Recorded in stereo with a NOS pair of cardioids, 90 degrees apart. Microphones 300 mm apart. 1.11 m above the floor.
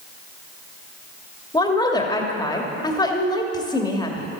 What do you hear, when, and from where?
1.5 s a woman speaking: 15° left, 2.5 m